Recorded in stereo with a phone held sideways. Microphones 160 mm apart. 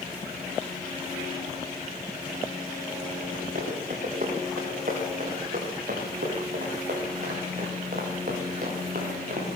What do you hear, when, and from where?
3.5 s running footsteps: 55° right (ahead or behind), 9 m; by 9.5 s 60° right (ahead or behind), 5.5 m